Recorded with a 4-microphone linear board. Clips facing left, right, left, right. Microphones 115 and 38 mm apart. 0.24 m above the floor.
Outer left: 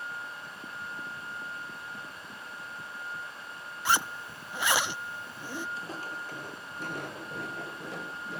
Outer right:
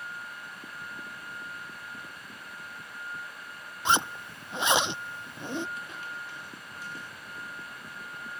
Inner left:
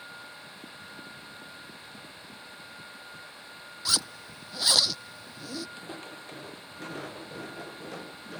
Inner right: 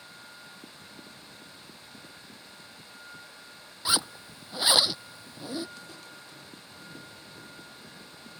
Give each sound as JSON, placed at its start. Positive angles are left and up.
{"t": 3.9, "sound": "a zipper", "side_deg": -20}
{"t": 5.8, "sound": "footsteps", "side_deg": 30}